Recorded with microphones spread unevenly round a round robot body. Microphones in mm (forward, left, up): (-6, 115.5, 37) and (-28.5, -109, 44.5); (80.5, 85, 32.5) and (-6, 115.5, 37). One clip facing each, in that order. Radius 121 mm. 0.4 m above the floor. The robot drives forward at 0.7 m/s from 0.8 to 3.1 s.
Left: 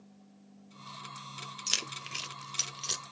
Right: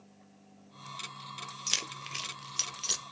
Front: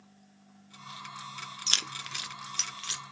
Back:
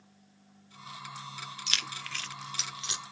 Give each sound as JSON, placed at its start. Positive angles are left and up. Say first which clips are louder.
{"t": 1.7, "sound": "keys jangling", "louder": "even, even", "azimuth_deg": 5, "distance_m": 1.0}